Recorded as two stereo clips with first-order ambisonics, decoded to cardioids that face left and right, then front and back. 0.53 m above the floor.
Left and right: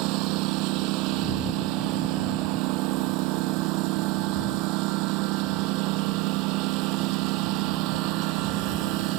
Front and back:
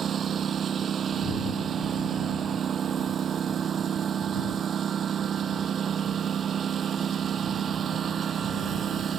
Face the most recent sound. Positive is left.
turn(degrees=-115)